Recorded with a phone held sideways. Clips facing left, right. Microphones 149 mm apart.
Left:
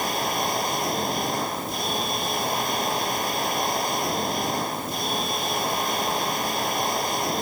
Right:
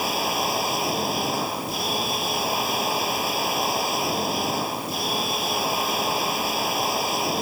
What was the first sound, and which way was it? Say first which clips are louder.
A machine running: right 1 dB; 5° right (ahead or behind).